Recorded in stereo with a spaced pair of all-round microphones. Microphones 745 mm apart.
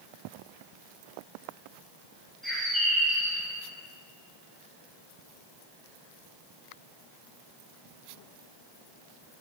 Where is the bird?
Centre (ahead or behind), 4 m.